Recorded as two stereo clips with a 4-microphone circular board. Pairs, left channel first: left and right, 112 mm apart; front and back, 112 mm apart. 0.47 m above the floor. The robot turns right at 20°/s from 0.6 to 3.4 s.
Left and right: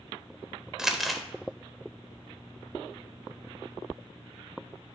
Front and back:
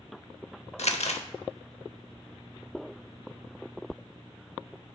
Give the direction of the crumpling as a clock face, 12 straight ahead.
12 o'clock.